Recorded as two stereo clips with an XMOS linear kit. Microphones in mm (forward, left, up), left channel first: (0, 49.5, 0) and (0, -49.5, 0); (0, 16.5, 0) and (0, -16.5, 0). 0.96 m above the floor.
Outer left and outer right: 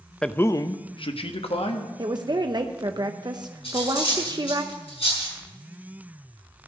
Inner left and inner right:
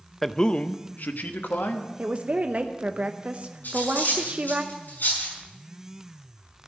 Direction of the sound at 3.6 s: 80° left.